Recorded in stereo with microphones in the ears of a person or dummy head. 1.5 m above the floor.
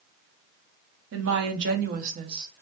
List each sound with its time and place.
1.1 s a woman speaking: 80° right, 0.8 m; by 2.6 s 20° right (ahead or behind), 0.5 m